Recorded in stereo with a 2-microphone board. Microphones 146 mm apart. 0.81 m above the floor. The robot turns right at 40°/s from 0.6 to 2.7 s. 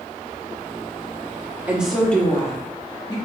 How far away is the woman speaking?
About 1.2 m.